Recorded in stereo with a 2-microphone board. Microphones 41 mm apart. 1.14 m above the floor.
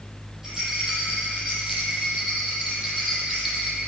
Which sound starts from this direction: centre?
A rattle, at 0.4 s.